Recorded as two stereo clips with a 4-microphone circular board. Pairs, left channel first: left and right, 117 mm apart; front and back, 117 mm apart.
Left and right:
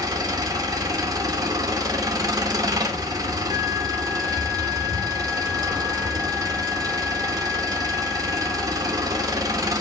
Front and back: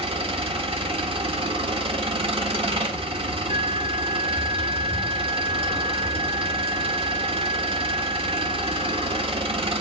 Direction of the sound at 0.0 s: 145° right.